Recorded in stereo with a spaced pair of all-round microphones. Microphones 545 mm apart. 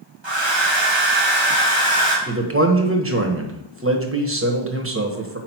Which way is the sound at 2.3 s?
25° right (ahead or behind).